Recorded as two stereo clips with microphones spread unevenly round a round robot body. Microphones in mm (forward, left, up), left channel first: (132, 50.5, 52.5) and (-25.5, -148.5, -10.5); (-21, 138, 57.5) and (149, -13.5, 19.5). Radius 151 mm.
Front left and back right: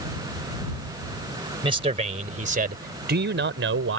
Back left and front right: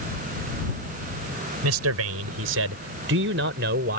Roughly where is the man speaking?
Ahead right.